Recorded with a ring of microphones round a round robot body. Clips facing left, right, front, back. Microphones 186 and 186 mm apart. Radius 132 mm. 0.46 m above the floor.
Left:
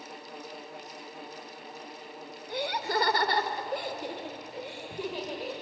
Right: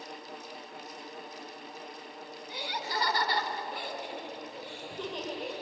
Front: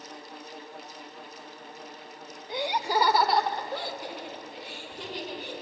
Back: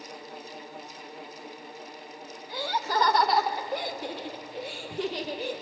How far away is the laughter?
About 1.9 m.